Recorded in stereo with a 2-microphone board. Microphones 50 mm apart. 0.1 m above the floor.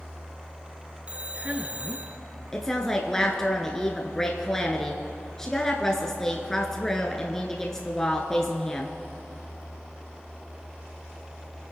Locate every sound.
1.1 s a man speaking: 25° right (ahead or behind), 1.2 m
2.5 s a woman speaking: 10° left (ahead or behind), 1.1 m